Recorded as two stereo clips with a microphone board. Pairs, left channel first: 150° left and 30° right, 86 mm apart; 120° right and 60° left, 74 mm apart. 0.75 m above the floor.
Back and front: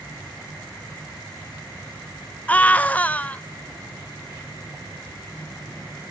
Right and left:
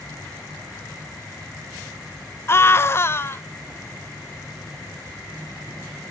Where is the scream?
150° right, 0.7 m.